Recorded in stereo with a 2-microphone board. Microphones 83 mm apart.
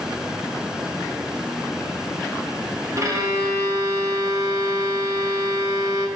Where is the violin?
45° right (ahead or behind), 1.3 m.